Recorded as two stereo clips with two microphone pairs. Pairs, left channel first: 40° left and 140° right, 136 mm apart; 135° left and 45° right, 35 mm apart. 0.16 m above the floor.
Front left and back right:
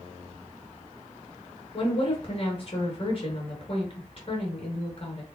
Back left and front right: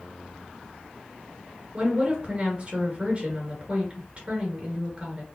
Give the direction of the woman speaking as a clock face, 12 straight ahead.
12 o'clock.